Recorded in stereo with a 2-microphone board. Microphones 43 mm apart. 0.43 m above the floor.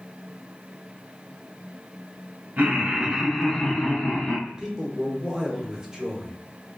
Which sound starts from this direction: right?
Laughter, at 2.6 s.